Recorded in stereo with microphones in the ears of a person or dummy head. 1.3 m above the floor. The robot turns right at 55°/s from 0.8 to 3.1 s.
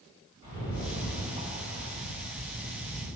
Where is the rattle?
95° left, 1.8 m; by 3.1 s 140° right, 1.8 m.